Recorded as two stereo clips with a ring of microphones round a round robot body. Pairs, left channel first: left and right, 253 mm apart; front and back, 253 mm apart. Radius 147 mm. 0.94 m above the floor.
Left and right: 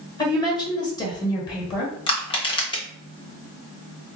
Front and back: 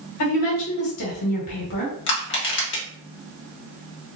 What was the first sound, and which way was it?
A woman speaking, 15° left.